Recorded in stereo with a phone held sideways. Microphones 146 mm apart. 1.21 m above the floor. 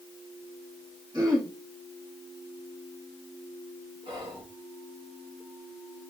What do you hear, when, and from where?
1.1 s throat clearing: 30° right (ahead or behind), 2.5 m
4.0 s whispering: 35° right (ahead or behind), 1.8 m